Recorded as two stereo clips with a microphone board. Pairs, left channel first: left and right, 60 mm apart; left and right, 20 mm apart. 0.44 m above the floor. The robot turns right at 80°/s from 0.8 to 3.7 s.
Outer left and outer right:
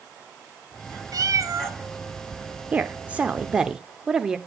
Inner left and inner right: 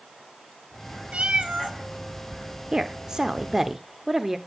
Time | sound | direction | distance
1.1 | a cat meowing | 95° right | 1.6 m
2.7 | a woman speaking | 25° right (ahead or behind) | 0.9 m